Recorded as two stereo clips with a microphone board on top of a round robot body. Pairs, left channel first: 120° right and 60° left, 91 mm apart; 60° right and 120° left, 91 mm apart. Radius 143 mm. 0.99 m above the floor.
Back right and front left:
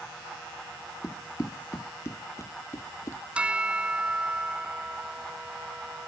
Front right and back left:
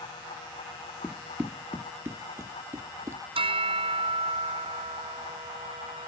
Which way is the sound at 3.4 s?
140° left.